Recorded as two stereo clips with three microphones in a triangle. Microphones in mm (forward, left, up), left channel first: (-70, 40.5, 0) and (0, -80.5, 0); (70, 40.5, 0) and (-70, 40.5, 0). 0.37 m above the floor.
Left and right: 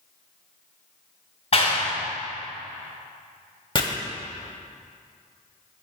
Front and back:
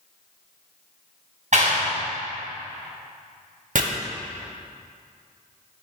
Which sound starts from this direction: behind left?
A clap, at 1.5 s.